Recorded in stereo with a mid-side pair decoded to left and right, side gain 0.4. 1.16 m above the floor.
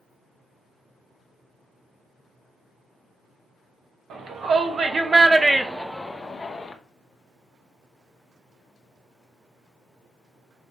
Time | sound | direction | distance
4.1 | a shout | 60° right | 1.6 m